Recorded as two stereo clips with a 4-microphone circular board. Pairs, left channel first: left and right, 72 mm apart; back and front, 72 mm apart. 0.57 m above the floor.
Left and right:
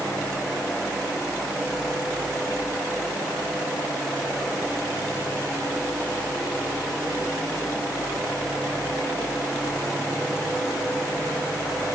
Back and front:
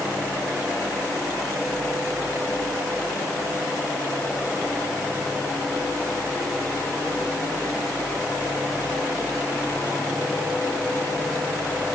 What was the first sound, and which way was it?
Only background noise.